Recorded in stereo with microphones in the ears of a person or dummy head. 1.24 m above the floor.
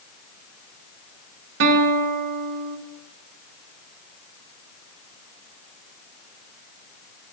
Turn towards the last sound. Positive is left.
turn(degrees=-65)  # may be behind; listen again after turning